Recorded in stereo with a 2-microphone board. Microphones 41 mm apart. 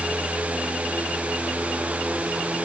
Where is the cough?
No cough in this recording.